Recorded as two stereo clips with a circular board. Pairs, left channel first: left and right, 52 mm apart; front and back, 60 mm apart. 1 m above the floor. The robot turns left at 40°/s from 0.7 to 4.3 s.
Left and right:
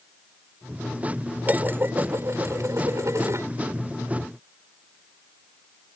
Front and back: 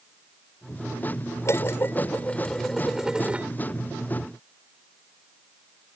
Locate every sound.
1.4 s dishes clattering: 35° right; by 3.5 s 115° right